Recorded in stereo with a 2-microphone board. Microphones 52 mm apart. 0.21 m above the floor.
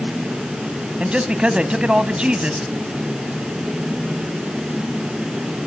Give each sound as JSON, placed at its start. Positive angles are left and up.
{"t": 1.0, "sound": "a man speaking", "side_deg": -20, "distance_m": 1.1}